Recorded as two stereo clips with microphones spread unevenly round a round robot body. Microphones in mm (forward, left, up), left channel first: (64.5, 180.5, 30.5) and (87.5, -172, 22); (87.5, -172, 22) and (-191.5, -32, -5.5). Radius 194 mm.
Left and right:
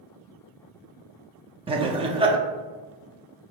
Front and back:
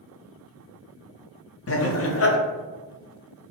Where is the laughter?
20° right, 0.7 m.